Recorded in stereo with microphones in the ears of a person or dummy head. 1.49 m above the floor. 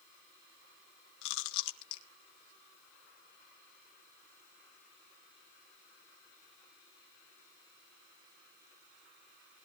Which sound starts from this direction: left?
Chewing, at 1.2 s.